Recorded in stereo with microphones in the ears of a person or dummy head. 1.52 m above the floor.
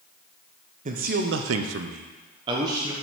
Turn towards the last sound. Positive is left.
turn(degrees=-20)  # may be behind; listen again after turning